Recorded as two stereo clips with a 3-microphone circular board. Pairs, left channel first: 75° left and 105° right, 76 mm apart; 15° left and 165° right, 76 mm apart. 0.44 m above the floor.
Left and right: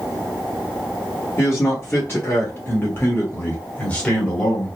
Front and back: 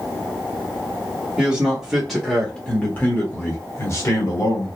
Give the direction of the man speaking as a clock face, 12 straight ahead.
8 o'clock.